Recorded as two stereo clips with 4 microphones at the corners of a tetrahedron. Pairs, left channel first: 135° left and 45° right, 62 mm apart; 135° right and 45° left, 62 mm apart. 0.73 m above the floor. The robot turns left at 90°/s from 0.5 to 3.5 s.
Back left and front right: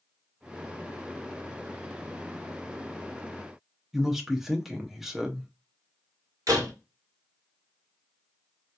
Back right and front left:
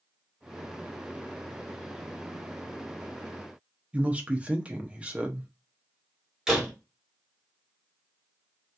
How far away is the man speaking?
About 0.6 m.